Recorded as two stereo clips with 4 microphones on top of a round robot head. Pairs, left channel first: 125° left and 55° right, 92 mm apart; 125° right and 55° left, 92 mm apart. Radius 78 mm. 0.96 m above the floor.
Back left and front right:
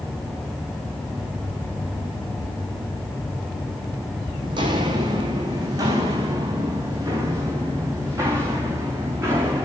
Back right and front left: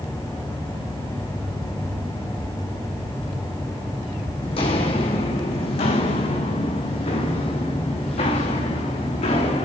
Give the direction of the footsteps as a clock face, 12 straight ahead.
3 o'clock.